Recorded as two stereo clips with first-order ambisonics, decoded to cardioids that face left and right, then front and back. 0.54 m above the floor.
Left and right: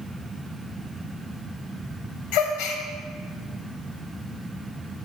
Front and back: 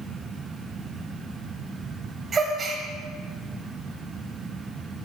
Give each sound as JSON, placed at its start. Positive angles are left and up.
{"t": 2.3, "sound": "a gasp", "azimuth_deg": 110, "distance_m": 0.8}